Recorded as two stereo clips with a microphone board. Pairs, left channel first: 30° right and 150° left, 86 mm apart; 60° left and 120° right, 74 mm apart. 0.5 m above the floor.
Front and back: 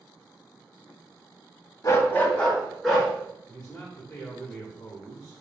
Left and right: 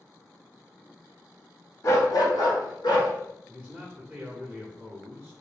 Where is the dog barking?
15° left, 0.7 m; by 3.1 s 60° left, 1.9 m.